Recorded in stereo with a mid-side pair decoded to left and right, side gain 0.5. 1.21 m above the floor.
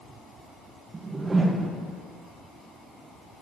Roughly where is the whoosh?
Ahead right.